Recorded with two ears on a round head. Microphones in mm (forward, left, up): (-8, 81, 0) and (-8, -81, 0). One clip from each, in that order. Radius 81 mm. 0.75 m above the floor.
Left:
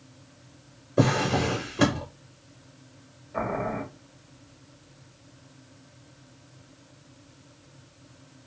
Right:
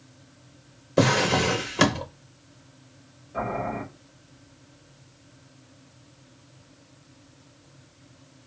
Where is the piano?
I don't hear a piano.